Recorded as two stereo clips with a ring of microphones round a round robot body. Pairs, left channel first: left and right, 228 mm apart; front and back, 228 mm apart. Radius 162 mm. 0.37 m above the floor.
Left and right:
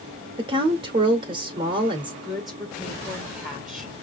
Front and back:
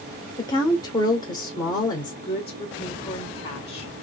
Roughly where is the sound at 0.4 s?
Ahead right.